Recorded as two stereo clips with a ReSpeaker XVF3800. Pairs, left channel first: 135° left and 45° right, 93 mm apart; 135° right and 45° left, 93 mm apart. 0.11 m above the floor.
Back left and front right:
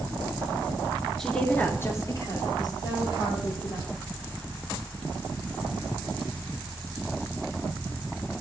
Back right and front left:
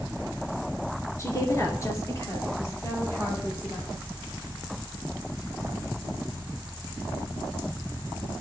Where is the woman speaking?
140° right, 1.2 m; by 3.9 s 160° left, 3 m.